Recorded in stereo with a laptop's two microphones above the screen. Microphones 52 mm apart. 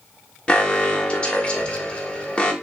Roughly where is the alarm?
Left.